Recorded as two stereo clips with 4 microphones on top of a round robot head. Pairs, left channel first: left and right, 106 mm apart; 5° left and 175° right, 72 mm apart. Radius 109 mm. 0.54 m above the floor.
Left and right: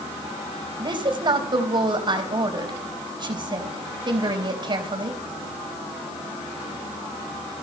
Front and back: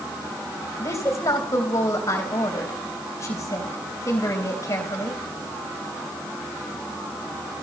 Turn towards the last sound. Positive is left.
turn(degrees=-45)